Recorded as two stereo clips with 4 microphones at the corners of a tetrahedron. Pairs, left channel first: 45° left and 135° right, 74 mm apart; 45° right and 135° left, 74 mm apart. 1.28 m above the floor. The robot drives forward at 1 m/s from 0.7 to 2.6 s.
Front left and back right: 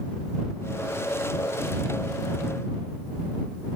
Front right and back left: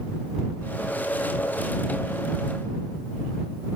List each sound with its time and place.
Only background noise.